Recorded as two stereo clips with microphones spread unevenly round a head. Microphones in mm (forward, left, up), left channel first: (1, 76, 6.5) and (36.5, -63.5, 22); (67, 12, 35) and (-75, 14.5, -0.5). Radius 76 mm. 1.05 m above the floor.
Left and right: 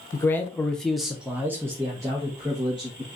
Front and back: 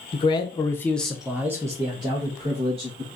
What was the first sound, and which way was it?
A man speaking, 50° left.